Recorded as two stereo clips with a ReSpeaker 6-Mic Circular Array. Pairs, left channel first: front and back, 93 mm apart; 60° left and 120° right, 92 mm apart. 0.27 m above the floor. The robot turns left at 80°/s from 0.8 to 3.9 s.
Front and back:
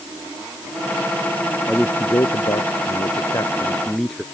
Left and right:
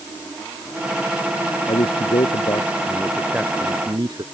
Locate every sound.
1.7 s a man speaking: 90° left; by 4.2 s 85° right